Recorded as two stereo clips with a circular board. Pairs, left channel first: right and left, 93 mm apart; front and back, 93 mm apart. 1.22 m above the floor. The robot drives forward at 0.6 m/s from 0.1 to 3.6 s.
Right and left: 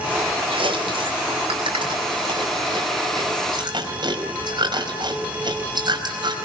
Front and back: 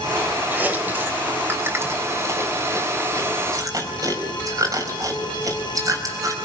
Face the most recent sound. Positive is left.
turn(degrees=130)